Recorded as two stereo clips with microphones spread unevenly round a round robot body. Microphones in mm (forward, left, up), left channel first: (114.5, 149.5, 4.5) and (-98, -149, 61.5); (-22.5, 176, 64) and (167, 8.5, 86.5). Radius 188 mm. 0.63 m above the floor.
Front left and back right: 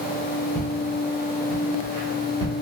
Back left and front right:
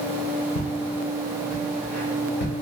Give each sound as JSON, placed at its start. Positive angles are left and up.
{"t": 0.6, "sound": "footsteps", "azimuth_deg": 150, "distance_m": 0.9}